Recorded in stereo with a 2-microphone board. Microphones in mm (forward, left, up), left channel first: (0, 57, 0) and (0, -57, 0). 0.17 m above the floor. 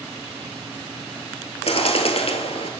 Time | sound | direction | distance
1.7 | a bird | 60° left (ahead or behind) | 1.3 m